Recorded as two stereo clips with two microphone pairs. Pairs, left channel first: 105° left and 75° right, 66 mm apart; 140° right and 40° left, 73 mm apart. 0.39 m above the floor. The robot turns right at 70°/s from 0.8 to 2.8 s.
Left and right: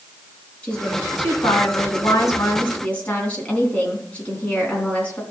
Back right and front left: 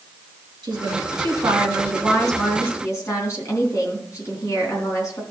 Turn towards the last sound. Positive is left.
turn(degrees=175)